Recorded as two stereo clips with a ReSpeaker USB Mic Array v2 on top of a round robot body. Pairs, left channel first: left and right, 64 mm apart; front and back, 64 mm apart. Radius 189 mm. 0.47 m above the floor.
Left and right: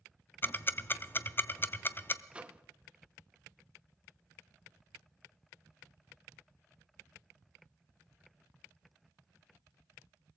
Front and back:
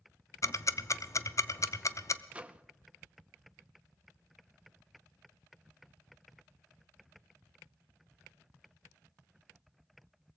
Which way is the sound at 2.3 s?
140° right.